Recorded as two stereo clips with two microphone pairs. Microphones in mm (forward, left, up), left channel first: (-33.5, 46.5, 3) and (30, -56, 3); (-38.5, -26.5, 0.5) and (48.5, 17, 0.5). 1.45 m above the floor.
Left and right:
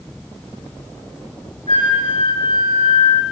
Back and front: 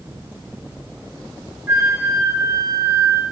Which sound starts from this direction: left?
A flute, at 1.7 s.